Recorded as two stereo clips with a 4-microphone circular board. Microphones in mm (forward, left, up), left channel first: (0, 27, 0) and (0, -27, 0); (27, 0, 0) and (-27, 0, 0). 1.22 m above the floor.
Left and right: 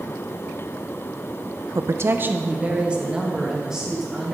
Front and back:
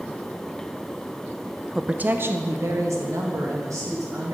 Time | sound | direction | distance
1.8 | a woman speaking | 100° right | 0.5 m